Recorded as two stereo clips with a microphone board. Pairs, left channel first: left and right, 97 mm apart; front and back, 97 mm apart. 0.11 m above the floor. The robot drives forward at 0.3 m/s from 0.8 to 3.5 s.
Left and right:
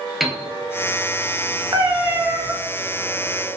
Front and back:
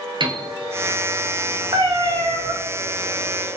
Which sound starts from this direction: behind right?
A cat meowing, at 1.7 s.